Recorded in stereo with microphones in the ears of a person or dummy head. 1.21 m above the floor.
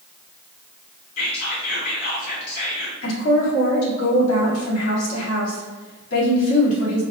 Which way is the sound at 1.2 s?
55° left (ahead or behind).